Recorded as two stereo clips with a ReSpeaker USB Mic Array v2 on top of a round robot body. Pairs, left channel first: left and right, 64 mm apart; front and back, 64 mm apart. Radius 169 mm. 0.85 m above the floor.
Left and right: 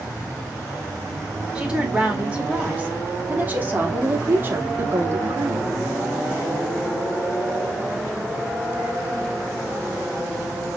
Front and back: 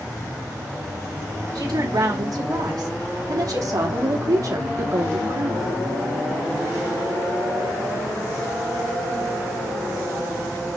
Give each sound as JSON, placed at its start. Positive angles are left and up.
{"t": 1.6, "sound": "a woman speaking", "azimuth_deg": -165, "distance_m": 4.5}